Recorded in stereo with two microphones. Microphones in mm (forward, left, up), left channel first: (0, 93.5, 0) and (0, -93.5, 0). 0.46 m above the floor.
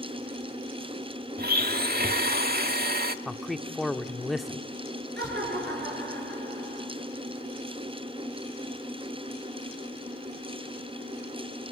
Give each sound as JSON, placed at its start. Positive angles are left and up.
{"t": 1.4, "sound": "a blender", "side_deg": -60, "distance_m": 1.1}
{"t": 3.2, "sound": "a man speaking", "side_deg": 0, "distance_m": 0.7}
{"t": 5.2, "sound": "laughter", "side_deg": -70, "distance_m": 6.5}